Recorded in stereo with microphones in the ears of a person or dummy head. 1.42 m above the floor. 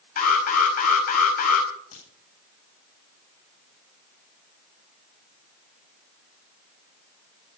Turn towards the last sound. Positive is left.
turn(degrees=45)  # may be behind; listen again after turning